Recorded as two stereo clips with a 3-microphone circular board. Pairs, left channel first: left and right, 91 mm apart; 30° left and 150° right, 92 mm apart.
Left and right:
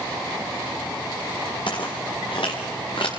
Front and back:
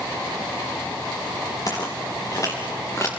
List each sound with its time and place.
1.7 s footsteps: 75° left, 4.5 m; by 3.1 s 85° left, 3.5 m